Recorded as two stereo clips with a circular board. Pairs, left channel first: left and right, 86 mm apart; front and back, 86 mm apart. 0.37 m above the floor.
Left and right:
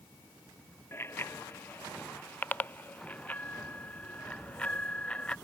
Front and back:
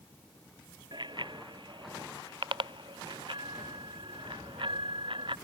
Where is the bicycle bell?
150° left; by 5.3 s 165° left.